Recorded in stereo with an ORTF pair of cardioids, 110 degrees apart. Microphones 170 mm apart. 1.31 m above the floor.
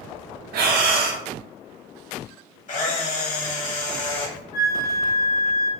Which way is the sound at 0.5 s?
70° right.